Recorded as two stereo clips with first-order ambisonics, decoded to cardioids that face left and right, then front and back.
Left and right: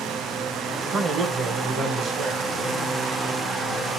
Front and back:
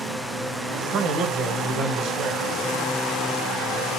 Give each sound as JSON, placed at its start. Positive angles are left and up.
{"t": 0.9, "sound": "a man speaking", "azimuth_deg": -145, "distance_m": 0.8}